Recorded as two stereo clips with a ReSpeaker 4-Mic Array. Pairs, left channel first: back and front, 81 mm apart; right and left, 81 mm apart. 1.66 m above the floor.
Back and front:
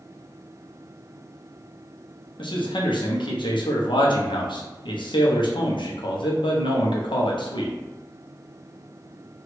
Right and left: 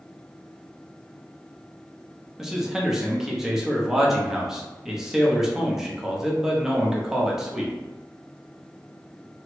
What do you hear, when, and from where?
2.4 s a man speaking: 175° left, 0.8 m